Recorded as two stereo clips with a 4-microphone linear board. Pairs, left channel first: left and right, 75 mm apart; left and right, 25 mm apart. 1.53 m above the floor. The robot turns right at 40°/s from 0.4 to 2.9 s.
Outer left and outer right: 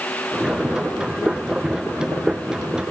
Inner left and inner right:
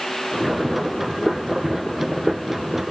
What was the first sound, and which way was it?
Only background noise.